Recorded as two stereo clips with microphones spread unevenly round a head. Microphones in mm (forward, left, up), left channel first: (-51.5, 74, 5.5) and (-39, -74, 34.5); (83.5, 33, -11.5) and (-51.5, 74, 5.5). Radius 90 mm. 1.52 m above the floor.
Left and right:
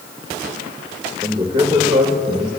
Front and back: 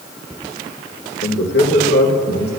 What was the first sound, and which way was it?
A man speaking, 20° right.